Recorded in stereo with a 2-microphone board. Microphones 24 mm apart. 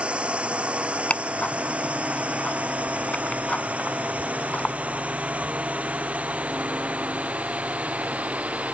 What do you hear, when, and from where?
0.0 s a drone: 60° right (ahead or behind); by 8.8 s 85° right
1.1 s ticking: 65° left (ahead or behind)